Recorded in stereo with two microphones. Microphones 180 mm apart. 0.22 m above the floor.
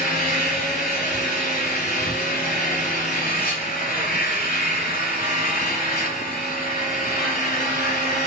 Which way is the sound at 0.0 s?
60° left (ahead or behind).